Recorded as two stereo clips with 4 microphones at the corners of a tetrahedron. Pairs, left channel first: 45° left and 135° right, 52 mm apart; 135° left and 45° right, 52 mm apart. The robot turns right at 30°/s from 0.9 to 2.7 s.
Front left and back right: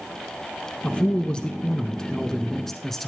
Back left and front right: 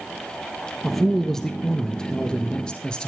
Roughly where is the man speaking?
Ahead left.